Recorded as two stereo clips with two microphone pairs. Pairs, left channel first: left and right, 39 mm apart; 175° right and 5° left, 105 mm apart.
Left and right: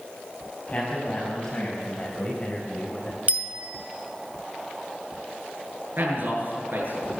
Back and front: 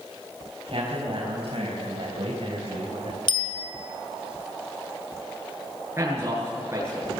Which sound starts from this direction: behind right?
A bicycle bell, at 3.3 s.